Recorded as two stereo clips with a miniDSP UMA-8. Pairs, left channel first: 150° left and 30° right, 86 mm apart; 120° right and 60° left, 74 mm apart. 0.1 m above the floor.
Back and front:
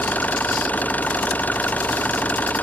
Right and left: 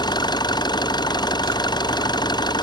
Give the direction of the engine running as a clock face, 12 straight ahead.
5 o'clock.